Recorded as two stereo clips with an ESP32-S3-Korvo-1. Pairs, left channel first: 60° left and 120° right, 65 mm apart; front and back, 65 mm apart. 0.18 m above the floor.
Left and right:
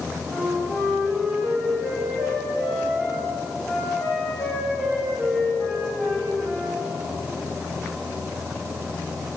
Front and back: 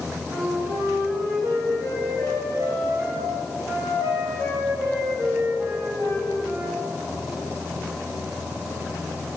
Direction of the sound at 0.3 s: 145° left.